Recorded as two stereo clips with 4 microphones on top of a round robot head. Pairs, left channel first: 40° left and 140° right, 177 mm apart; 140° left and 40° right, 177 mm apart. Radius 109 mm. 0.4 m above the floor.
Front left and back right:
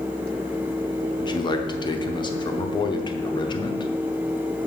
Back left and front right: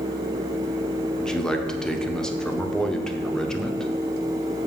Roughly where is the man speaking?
Ahead left.